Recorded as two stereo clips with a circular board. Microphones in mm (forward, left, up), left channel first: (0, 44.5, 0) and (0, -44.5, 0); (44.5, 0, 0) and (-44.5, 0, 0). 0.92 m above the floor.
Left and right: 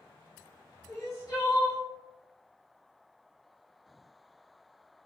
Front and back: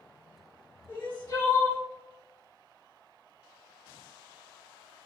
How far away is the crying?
About 1.3 m.